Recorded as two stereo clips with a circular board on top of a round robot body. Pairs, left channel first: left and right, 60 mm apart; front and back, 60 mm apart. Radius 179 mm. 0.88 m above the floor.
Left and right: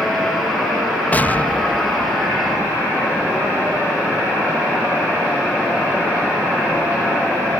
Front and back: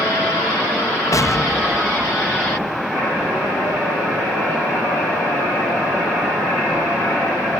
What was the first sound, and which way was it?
An explosion, 30° left.